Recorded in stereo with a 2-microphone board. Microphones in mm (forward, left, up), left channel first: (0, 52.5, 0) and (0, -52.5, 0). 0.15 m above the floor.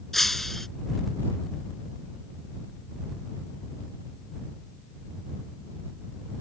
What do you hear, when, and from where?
0.1 s breaking glass: 5° left (ahead or behind)